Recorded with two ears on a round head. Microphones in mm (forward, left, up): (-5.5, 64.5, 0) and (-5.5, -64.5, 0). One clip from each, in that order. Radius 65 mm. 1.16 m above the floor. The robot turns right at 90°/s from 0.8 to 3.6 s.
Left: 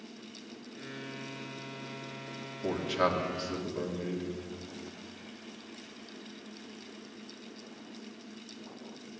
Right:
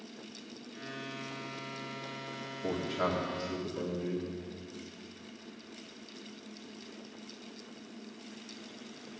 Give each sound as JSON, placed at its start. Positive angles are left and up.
{"t": 2.6, "sound": "a man speaking", "azimuth_deg": 75, "distance_m": 2.5}